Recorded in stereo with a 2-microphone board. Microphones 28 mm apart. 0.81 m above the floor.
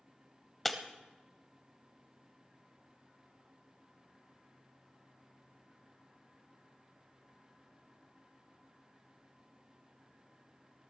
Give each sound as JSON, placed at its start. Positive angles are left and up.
{"t": 0.7, "sound": "breaking glass", "side_deg": 5, "distance_m": 1.1}